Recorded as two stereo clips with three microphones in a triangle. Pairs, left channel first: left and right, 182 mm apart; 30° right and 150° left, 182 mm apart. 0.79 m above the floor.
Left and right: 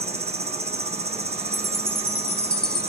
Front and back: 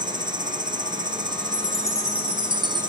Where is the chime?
115° left, 6 m.